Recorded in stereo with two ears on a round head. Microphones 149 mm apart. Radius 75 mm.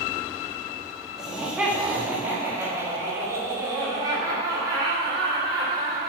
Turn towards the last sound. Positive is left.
turn(degrees=-25)  # may be behind; listen again after turning